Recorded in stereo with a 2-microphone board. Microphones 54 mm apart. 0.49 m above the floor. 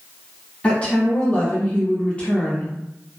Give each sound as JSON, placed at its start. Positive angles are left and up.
{"t": 0.6, "sound": "a woman speaking", "side_deg": 25, "distance_m": 1.3}